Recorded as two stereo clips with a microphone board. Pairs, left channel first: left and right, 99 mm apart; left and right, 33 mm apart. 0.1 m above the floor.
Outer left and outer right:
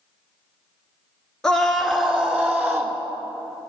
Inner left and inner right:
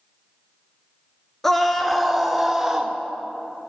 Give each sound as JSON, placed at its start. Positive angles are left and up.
{"t": 1.4, "sound": "a scream", "side_deg": 5, "distance_m": 1.2}